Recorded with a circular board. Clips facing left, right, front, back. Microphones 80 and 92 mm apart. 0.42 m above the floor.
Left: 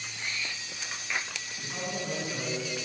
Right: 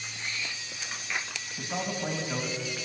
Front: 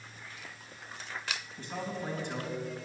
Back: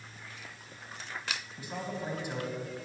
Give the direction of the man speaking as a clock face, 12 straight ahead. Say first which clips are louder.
Right 4 dB, front 1 dB; 3 o'clock.